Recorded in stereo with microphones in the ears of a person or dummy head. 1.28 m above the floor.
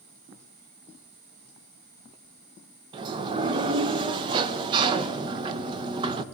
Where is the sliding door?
25° right (ahead or behind), 0.6 m.